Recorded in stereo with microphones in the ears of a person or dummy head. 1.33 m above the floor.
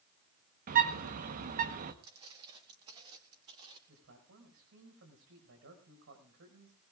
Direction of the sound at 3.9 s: 80° right.